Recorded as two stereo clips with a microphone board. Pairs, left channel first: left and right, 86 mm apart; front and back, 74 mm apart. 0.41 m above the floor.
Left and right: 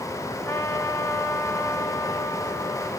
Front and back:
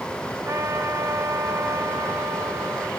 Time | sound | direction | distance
0.5 | a trumpet | 135° left | 1.5 m